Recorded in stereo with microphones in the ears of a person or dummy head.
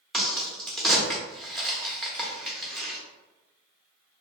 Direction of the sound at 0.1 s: Centre (ahead or behind).